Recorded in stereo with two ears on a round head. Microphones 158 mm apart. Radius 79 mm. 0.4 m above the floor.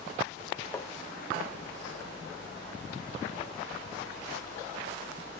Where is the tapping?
15° left (ahead or behind), 0.7 m.